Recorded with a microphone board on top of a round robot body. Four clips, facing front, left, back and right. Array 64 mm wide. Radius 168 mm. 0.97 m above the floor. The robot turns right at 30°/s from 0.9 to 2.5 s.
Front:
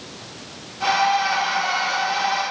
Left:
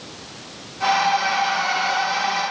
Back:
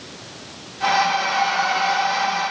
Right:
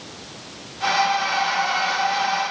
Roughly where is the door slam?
I don't hear a door slam.